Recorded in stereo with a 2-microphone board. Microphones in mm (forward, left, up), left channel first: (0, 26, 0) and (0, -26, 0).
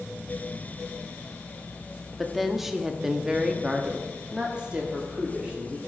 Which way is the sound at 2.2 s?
Centre (ahead or behind).